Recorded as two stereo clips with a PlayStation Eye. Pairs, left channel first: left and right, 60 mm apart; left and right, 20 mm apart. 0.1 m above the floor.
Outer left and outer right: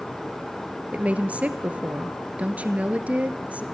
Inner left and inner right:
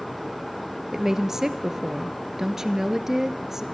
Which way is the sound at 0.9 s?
20° right (ahead or behind).